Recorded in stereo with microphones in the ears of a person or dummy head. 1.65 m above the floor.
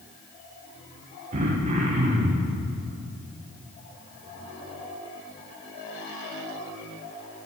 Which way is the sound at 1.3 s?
35° right (ahead or behind).